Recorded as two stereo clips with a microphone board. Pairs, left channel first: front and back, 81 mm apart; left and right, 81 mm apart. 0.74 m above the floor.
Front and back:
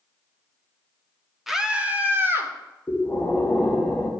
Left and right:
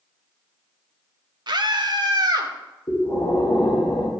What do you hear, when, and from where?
1.5 s a scream: 95° right, 1.0 m; by 2.5 s 125° right, 1.9 m
2.9 s breathing: 75° left, 1.9 m